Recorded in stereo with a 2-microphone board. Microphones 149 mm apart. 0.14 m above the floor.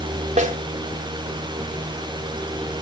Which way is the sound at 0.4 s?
45° right (ahead or behind).